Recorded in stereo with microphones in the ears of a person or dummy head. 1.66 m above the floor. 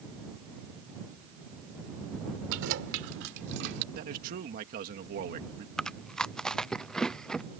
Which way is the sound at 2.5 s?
80° right.